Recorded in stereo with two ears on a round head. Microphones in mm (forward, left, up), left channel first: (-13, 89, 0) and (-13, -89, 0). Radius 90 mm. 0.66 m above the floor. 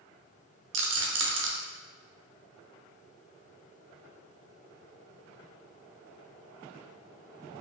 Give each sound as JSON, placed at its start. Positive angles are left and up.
{"t": 0.7, "sound": "a rattle", "side_deg": -60, "distance_m": 0.6}